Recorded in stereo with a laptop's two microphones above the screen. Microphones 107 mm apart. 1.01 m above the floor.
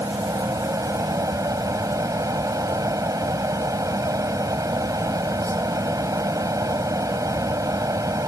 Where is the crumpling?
No crumpling in this recording.